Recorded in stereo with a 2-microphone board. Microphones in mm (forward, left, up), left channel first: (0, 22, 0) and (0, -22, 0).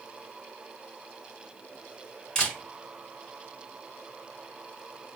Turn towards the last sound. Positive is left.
turn(degrees=15)  # may be behind; listen again after turning